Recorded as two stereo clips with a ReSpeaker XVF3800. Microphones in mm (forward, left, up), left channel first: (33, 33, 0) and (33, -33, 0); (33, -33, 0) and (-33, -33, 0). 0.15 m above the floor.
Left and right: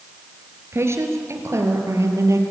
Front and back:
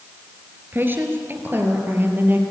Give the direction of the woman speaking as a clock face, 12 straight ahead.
4 o'clock.